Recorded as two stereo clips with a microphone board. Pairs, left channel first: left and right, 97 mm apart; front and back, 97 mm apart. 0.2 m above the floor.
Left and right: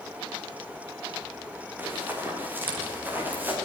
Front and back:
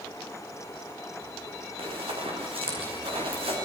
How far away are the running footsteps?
About 8 m.